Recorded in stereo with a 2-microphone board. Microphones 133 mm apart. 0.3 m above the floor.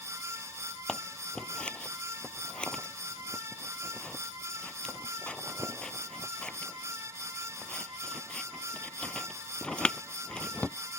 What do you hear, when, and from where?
0.9 s scissors: 5° left (ahead or behind)